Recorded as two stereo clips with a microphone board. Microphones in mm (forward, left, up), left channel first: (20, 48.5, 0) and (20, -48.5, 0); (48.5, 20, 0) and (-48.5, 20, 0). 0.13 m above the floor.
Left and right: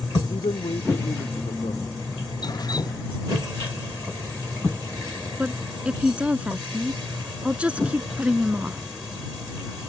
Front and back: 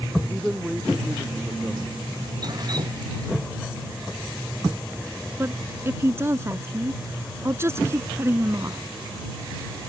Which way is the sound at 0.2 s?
95° left.